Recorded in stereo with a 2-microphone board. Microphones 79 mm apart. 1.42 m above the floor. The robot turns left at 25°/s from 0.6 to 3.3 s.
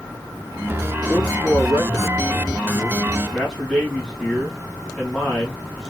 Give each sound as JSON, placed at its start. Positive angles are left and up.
{"t": 1.1, "sound": "a man speaking", "azimuth_deg": 60, "distance_m": 2.0}